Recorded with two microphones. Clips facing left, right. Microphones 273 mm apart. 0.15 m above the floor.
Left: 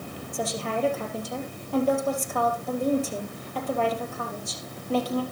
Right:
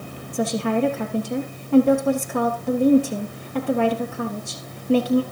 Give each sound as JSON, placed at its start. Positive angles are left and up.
{"t": 0.3, "sound": "a woman speaking", "side_deg": -70, "distance_m": 3.0}